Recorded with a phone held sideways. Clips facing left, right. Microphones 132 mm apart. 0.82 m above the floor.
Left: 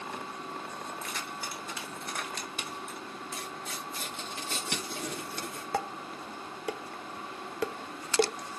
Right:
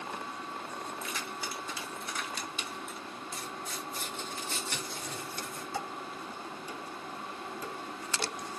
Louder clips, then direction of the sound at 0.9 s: Even; 55° left (ahead or behind).